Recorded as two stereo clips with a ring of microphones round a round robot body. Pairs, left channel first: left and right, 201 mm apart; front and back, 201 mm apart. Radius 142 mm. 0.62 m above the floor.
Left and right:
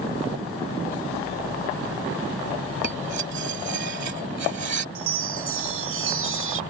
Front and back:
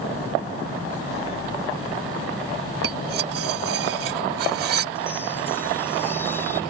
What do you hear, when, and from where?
2.8 s cutlery clinking: 145° right
5.0 s a chime: 80° right